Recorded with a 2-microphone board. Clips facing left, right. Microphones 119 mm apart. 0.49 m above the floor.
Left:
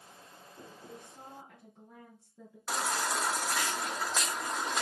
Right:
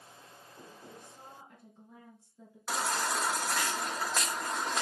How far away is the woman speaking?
About 3.5 m.